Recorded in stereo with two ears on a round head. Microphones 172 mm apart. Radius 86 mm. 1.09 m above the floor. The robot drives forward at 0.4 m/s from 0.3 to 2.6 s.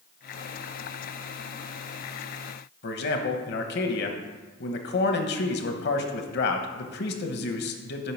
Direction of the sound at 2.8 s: 60° left (ahead or behind).